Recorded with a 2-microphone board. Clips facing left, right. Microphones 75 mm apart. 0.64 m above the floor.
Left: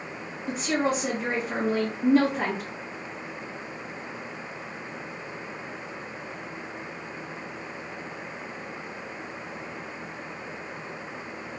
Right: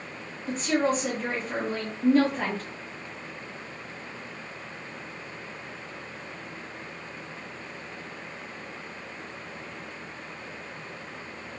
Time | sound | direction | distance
0.5 | a woman speaking | 10° left (ahead or behind) | 1.0 m